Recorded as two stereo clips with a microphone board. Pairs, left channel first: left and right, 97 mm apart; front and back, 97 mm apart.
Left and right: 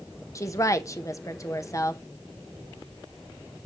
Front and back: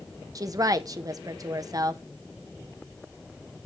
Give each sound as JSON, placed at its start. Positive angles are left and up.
{"t": 0.3, "sound": "a woman speaking", "azimuth_deg": 135, "distance_m": 1.0}